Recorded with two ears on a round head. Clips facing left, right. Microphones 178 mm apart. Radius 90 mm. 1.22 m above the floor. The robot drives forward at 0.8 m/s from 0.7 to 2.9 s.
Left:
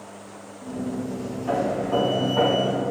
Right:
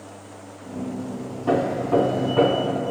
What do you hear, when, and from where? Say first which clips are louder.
1.5 s hammering: right 3 dB; 65° right (ahead or behind), 1.5 m; by 2.8 s 40° right (ahead or behind), 2 m